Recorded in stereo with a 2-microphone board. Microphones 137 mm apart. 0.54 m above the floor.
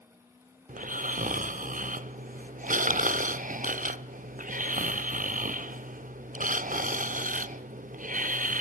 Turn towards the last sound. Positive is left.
turn(degrees=-75)  # may be behind; listen again after turning